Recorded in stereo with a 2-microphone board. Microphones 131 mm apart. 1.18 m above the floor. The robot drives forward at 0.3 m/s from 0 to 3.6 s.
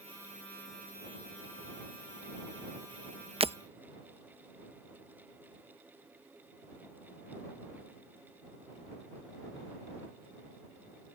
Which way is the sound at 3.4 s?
50° right (ahead or behind).